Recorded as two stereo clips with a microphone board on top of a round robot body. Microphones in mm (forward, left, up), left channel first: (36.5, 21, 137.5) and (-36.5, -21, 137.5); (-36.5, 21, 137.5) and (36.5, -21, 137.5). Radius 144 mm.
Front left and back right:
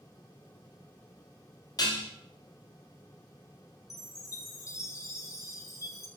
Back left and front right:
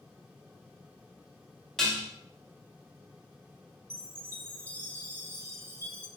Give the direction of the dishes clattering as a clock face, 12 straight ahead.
10 o'clock.